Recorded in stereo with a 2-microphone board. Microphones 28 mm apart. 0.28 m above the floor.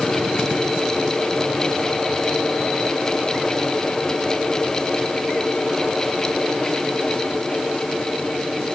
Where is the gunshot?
No gunshot in this recording.